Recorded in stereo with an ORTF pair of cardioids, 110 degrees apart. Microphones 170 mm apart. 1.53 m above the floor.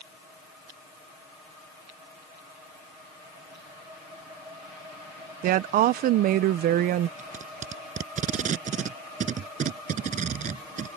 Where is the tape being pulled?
50° right.